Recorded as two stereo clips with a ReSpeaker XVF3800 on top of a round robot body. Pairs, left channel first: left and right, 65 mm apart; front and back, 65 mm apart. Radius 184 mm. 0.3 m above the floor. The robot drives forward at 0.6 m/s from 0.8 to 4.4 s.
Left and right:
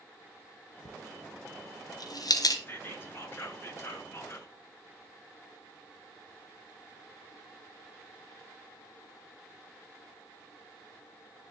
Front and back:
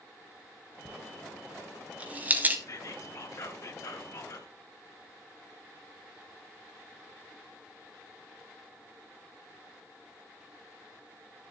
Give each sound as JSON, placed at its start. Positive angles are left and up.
{"t": 0.8, "sound": "a dropped coin", "azimuth_deg": 95, "distance_m": 2.5}
{"t": 2.7, "sound": "whispering", "azimuth_deg": 35, "distance_m": 6.0}